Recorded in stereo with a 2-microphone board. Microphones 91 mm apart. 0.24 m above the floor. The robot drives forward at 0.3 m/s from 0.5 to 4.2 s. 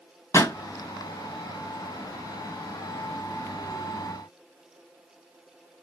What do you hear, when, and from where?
0.3 s a pop: 35° left (ahead or behind), 2.0 m